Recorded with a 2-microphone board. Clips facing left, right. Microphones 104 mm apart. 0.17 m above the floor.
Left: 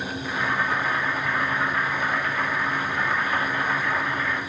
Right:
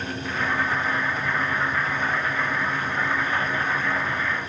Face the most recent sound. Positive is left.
turn(degrees=-15)  # may be behind; listen again after turning